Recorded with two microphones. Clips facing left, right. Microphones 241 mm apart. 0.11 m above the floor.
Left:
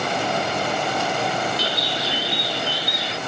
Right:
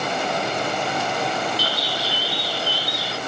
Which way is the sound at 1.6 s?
20° left (ahead or behind).